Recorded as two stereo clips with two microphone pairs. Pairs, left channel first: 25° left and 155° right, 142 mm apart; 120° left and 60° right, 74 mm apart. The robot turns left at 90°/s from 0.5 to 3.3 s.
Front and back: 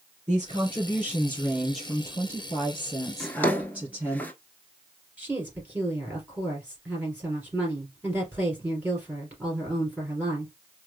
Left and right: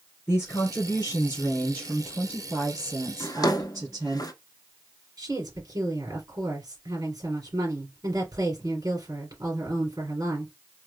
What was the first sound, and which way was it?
A woman speaking, 175° left.